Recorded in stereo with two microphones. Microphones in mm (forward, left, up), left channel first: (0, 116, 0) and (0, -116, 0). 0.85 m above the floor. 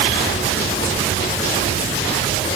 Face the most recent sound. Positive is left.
No sound to turn to.